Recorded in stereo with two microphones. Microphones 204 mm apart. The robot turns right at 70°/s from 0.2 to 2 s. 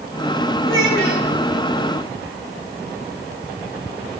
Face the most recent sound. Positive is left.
turn(degrees=175)